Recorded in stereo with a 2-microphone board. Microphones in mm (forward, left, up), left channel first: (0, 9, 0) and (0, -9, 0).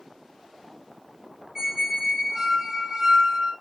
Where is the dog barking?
I don't hear a dog barking.